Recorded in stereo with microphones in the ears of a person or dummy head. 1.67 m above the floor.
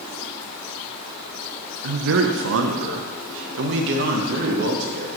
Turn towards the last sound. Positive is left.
turn(degrees=-55)  # may be behind; listen again after turning